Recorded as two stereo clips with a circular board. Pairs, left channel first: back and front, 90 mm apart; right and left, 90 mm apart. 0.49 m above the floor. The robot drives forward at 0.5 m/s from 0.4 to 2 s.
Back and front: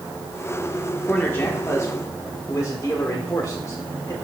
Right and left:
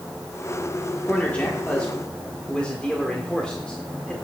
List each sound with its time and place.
1.0 s a man speaking: 140° right, 1.2 m; by 4.2 s 160° right, 1.4 m